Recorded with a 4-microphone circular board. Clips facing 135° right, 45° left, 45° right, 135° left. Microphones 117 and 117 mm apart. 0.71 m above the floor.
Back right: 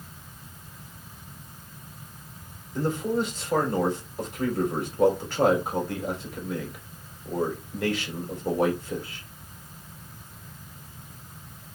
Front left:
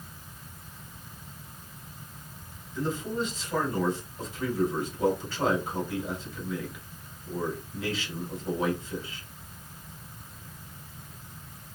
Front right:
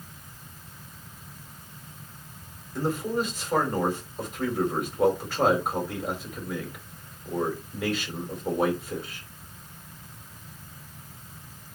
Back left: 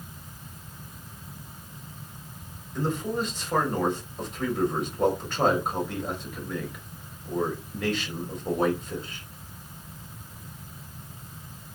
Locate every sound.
2.8 s a man speaking: 130° right, 3.5 m